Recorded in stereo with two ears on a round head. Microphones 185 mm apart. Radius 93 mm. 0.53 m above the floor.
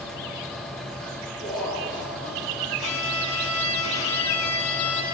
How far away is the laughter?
About 7.5 m.